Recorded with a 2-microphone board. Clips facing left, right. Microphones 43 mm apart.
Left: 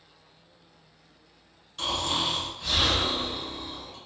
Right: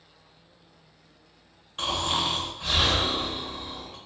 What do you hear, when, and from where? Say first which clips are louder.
1.8 s snoring: right 1 dB; 35° right (ahead or behind), 1.2 m